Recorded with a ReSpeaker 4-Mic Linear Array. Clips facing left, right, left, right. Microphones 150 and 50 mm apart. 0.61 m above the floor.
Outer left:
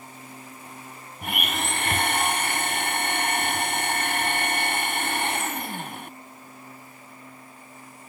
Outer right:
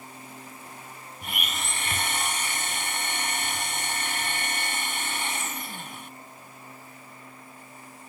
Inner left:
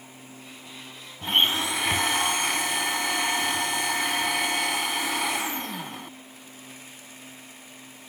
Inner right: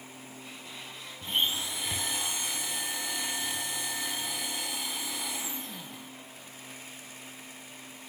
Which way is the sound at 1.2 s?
65° left (ahead or behind).